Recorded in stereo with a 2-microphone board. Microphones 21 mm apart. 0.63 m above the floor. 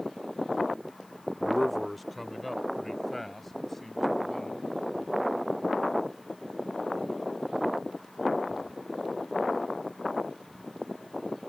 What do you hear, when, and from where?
1.4 s a man speaking: 10° right (ahead or behind); by 4.6 s 10° left (ahead or behind)